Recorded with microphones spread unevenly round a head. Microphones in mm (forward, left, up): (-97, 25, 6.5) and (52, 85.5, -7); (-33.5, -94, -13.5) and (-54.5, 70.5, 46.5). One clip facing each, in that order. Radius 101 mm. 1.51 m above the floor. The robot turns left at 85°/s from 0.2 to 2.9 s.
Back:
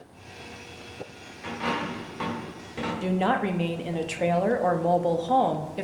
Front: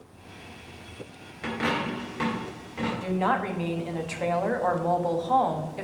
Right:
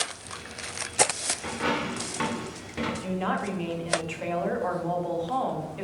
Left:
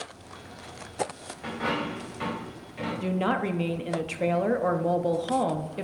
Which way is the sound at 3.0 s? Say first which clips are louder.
Back 3 dB, left 6 dB; 140° left.